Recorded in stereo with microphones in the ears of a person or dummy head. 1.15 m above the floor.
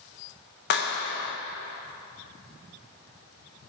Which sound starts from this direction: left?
A clap, at 0.7 s.